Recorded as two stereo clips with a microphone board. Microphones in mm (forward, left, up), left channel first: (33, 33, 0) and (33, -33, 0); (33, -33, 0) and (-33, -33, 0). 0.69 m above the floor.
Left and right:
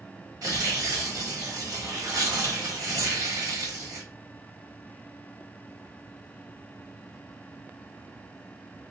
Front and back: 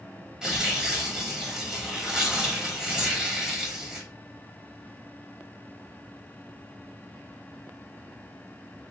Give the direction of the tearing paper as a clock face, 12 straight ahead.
3 o'clock.